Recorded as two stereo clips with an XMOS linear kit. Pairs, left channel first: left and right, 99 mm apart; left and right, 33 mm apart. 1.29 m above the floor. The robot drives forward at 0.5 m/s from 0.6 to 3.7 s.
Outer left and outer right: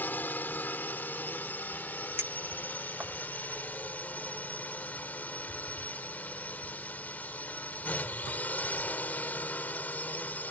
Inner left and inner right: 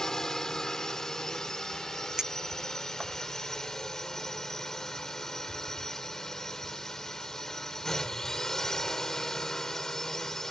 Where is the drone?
15° left (ahead or behind).